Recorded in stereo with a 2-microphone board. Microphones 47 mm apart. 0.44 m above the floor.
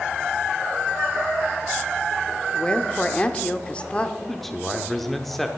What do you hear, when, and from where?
2.5 s a woman speaking: 25° left (ahead or behind), 0.8 m
4.2 s a man speaking: 5° left (ahead or behind), 0.9 m